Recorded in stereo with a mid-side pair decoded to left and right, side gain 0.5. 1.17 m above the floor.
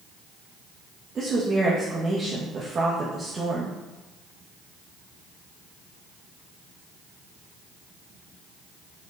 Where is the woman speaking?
35° right, 1.2 m.